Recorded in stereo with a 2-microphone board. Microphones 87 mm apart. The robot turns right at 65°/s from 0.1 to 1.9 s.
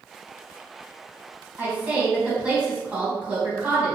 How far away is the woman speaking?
About 1.6 m.